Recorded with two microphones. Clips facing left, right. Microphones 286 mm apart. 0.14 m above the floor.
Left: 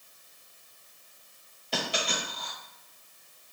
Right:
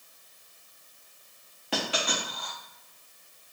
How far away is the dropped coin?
About 2 m.